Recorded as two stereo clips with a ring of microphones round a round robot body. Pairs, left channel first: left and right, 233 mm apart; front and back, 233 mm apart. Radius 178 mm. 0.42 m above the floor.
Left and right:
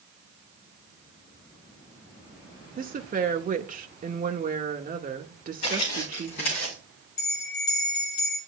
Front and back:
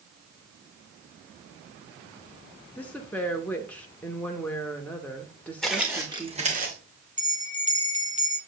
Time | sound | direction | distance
2.8 | a woman speaking | 80° right | 0.9 m
5.6 | footsteps | 90° left | 2.5 m
7.2 | a bell | 125° left | 1.7 m